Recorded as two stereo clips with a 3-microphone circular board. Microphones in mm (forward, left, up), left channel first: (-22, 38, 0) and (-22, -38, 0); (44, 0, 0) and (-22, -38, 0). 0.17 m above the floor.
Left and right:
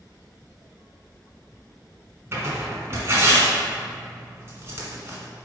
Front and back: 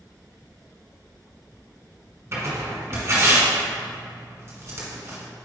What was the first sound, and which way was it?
Tearing paper, 125° right.